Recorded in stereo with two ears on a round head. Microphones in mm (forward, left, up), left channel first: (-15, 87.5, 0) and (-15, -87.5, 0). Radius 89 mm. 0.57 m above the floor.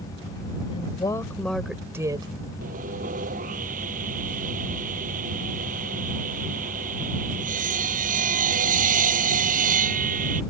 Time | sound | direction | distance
0.7 | a woman speaking | 30° left (ahead or behind) | ?
2.6 | sawing | 45° right (ahead or behind) | ?